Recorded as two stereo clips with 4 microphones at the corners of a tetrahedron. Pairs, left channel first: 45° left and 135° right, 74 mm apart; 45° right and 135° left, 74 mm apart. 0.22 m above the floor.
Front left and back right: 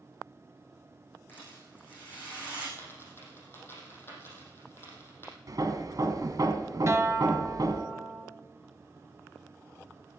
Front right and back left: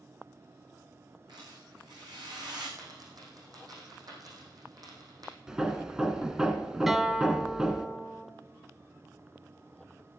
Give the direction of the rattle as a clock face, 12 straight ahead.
8 o'clock.